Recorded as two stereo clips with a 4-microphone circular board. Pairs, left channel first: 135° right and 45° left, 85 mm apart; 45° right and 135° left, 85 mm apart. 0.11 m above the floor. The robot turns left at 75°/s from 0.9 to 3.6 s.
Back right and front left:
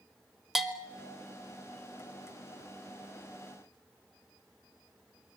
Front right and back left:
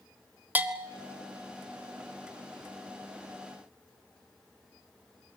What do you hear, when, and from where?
0.6 s a bell: 125° left, 1.7 m; by 1.1 s 110° left, 1.7 m